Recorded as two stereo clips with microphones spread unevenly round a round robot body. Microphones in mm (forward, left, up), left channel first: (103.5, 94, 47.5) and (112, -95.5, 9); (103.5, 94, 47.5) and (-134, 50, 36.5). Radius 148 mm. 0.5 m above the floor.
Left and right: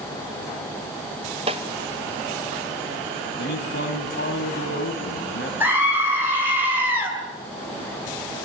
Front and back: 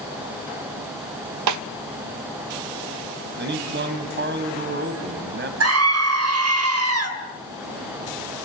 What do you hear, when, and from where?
1.5 s a snare drum: 155° right, 0.6 m
3.4 s a man speaking: 150° left, 3.5 m
5.6 s a scream: 165° right, 2.5 m